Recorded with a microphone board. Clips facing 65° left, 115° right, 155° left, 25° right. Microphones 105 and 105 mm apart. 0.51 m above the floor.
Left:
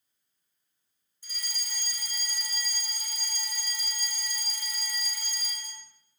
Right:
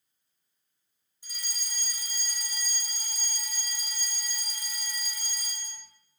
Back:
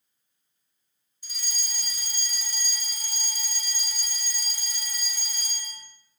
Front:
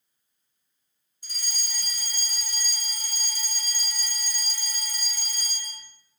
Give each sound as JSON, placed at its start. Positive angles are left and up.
{"t": 1.2, "sound": "a fire alarm", "azimuth_deg": -45, "distance_m": 3.0}